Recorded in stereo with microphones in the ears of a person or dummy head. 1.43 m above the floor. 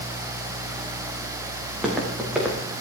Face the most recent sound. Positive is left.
turn(degrees=-10)  # may be behind; listen again after turning